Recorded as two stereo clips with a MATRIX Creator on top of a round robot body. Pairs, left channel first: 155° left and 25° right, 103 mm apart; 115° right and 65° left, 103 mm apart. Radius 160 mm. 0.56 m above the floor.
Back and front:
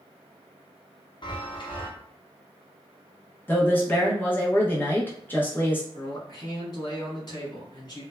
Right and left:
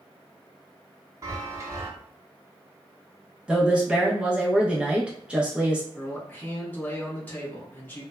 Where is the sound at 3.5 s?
130° left, 0.8 m.